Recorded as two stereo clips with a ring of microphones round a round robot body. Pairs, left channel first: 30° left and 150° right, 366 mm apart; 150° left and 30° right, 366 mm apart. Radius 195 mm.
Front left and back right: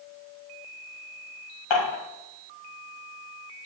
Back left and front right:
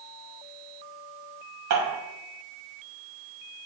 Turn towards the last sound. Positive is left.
turn(degrees=15)